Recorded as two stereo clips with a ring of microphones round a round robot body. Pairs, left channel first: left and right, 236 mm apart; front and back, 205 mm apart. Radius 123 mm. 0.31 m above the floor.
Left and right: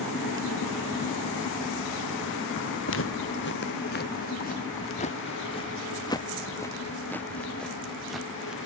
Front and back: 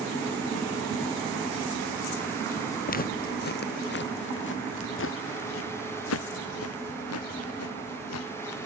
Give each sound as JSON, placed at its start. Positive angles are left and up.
{"t": 2.9, "sound": "footsteps", "azimuth_deg": 50}